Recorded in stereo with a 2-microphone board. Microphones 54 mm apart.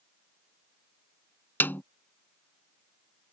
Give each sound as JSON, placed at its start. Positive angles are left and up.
{"t": 1.6, "sound": "a snare drum", "side_deg": 35}